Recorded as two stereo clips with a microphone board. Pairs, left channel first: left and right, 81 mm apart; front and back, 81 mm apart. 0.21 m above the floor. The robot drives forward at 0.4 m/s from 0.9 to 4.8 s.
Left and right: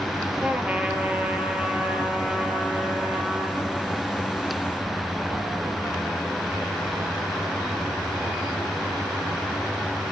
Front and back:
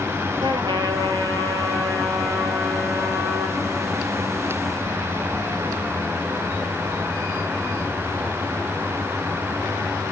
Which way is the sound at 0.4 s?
165° right.